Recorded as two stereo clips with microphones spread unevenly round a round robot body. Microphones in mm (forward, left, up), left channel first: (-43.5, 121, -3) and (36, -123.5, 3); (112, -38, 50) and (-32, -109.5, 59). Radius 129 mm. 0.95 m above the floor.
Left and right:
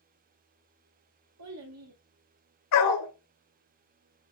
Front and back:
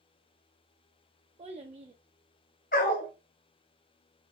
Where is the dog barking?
80° left, 1.8 m.